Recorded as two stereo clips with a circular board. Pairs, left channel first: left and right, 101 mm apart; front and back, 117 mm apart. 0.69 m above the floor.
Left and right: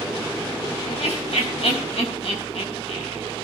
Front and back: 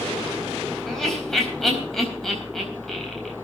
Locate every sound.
0.8 s laughter: 90° left, 4 m